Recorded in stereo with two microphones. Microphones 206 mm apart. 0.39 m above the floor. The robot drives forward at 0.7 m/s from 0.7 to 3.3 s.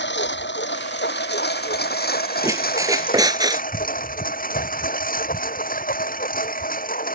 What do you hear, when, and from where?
0.0 s a lawn mower: 60° left (ahead or behind); by 7.2 s 45° left (ahead or behind)
2.4 s a squeak: 15° right (ahead or behind); by 3.6 s 20° right (ahead or behind)